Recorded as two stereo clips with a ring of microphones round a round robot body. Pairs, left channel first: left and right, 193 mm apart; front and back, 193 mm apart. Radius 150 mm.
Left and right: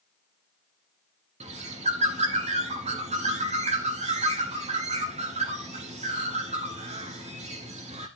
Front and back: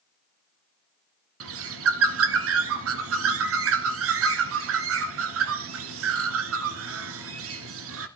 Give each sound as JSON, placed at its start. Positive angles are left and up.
{"t": 1.4, "sound": "a bird", "azimuth_deg": -160, "distance_m": 1.3}